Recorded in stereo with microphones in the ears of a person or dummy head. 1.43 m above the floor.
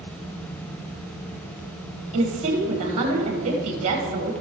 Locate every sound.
2.1 s a woman speaking: 35° right (ahead or behind), 1.8 m